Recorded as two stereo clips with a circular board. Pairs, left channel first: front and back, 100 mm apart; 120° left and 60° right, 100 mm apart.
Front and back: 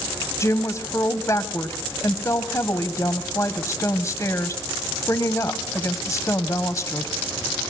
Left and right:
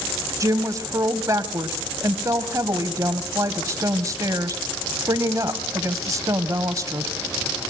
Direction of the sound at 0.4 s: 35° right.